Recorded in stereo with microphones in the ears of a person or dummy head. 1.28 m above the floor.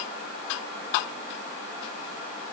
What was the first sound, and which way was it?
Only background noise.